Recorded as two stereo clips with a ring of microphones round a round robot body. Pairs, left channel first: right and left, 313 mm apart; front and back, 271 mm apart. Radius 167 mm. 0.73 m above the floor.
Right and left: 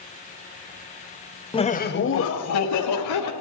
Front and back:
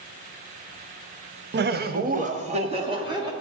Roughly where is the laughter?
Behind.